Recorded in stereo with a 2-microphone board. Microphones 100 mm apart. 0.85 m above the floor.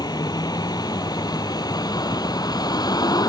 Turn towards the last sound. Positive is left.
turn(degrees=40)  # may be behind; listen again after turning